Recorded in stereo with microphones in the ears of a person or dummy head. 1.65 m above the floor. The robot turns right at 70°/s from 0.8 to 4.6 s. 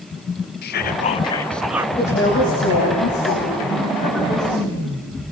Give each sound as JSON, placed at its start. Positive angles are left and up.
{"t": 0.6, "sound": "whispering", "azimuth_deg": 120, "distance_m": 0.7}
{"t": 2.0, "sound": "a woman speaking", "azimuth_deg": 10, "distance_m": 7.5}